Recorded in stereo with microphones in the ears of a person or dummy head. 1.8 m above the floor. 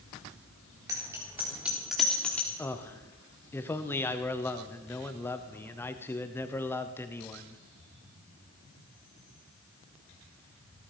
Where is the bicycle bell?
20° right (ahead or behind), 4 m; by 2.5 s 10° left (ahead or behind), 3.5 m.